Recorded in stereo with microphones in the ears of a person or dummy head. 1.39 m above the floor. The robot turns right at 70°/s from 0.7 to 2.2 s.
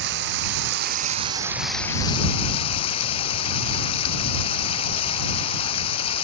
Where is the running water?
70° right; by 6.2 s 35° left.